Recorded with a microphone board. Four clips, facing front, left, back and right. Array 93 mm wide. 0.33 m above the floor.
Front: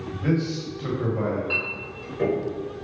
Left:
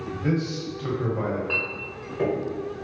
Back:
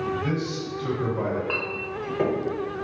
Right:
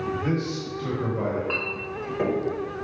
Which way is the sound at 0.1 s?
5° right.